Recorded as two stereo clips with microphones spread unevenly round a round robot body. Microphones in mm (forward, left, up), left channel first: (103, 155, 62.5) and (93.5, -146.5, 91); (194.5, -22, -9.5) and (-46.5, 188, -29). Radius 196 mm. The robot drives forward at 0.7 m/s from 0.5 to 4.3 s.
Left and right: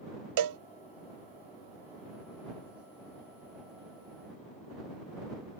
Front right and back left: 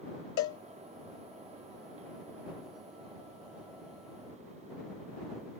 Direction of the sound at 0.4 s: 95° right.